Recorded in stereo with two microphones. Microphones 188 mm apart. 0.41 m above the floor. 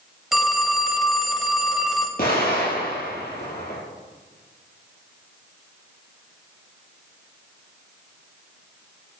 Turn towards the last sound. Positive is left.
turn(degrees=55)  # may be behind; listen again after turning